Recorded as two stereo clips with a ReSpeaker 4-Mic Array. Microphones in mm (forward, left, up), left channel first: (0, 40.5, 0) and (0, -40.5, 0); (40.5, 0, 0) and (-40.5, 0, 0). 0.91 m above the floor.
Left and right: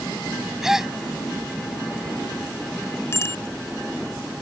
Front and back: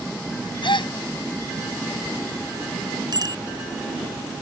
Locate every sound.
0.6 s a gasp: 5° right
3.1 s a bicycle bell: 145° left